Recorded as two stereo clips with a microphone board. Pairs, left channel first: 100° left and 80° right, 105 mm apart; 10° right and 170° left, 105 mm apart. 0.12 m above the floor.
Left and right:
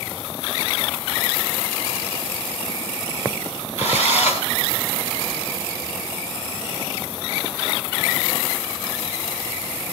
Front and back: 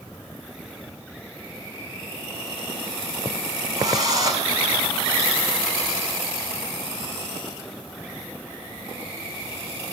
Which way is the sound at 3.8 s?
115° left.